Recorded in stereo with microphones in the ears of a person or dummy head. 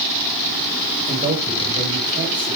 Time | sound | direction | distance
1.1 | a man speaking | 40° right (ahead or behind) | 3 m